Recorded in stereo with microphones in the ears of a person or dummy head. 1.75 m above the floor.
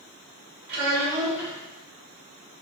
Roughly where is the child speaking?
Centre.